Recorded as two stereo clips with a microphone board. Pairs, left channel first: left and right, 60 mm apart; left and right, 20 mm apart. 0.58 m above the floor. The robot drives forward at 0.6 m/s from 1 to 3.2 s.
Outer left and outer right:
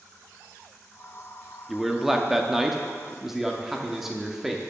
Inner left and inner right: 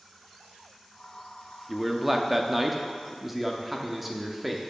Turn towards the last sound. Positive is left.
turn(degrees=-5)  # may be behind; listen again after turning